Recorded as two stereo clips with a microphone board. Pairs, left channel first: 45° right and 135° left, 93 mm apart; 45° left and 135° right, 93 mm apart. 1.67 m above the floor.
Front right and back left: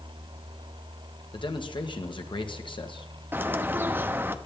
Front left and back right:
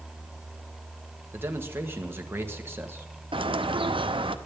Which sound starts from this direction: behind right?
A bird, at 3.3 s.